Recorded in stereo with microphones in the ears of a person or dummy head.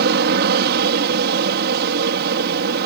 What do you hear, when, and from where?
0.0 s an aircraft: 55° right (ahead or behind)